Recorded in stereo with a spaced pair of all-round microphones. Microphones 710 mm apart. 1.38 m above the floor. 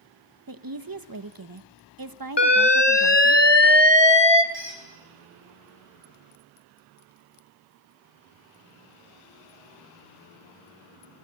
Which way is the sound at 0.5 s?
30° right (ahead or behind).